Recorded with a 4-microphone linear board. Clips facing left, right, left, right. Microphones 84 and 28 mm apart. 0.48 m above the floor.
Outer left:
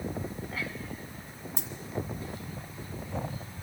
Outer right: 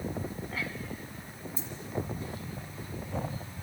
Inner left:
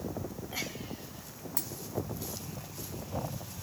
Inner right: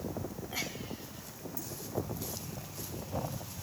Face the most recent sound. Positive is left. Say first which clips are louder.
# outer left 2 dB, inner left 5 dB
turn(degrees=80)